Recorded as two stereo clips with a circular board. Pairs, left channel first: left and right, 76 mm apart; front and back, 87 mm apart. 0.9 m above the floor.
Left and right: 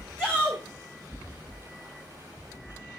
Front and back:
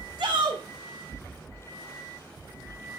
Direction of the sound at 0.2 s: 170° left.